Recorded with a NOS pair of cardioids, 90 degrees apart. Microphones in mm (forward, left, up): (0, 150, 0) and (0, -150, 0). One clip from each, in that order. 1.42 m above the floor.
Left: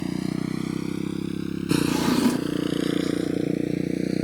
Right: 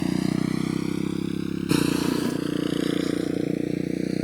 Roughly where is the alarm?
I don't hear an alarm.